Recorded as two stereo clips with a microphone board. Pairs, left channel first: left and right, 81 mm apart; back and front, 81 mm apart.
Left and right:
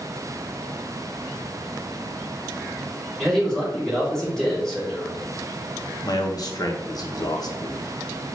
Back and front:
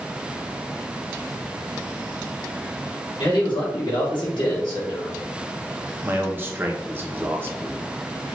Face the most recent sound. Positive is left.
turn(degrees=60)